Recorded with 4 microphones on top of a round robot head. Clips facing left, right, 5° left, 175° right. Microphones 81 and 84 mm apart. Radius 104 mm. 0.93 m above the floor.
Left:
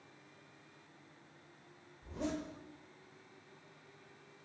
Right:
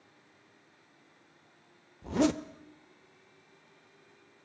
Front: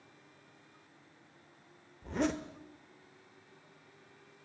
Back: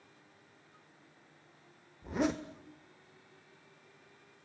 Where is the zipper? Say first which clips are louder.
Right 12 dB, back 1 dB; 90° right, 1.1 m.